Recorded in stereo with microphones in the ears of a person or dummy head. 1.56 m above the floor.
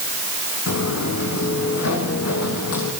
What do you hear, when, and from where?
0.7 s footsteps: 70° left (ahead or behind), 5 m; by 2.9 s 75° left (ahead or behind), 6.5 m